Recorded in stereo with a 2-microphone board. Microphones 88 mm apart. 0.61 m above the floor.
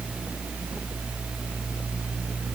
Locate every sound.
Only background noise.